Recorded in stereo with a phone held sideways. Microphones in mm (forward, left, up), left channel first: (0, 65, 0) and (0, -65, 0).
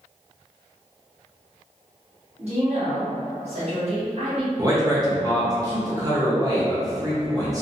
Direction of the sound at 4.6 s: 30° right (ahead or behind).